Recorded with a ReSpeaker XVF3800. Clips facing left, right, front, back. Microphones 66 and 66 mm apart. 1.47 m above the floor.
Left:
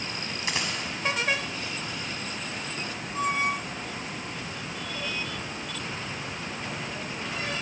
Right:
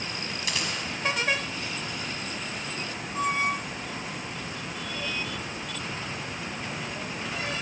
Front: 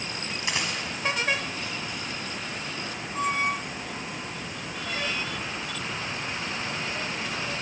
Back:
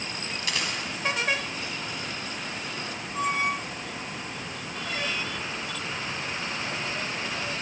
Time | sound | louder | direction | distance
0.4 | a dropped coin | left 2 dB, front 1 dB | 50° left | 1.6 m